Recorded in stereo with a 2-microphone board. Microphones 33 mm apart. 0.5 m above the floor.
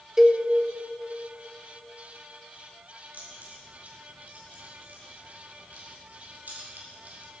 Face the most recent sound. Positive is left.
turn(degrees=-65)  # may be behind; listen again after turning